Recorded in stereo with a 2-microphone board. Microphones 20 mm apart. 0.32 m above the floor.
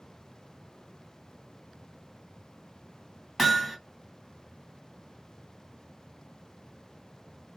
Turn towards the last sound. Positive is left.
turn(degrees=-5)  # may be behind; listen again after turning